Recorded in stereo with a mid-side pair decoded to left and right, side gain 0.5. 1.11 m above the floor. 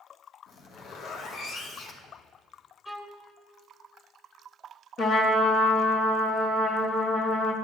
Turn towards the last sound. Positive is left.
turn(degrees=55)